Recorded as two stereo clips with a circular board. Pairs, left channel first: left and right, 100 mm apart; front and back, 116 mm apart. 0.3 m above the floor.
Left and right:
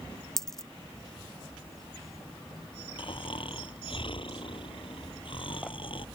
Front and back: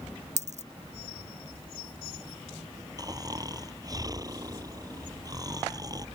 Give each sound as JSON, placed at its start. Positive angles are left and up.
{"t": 0.4, "sound": "a dropped coin", "azimuth_deg": 175}
{"t": 3.0, "sound": "snoring", "azimuth_deg": 125}